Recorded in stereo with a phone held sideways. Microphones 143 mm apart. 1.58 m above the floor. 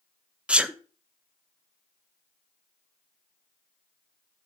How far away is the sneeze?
About 0.6 m.